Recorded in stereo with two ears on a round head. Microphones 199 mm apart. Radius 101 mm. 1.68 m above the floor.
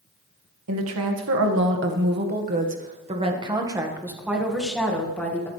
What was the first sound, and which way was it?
A woman speaking, 70° right (ahead or behind).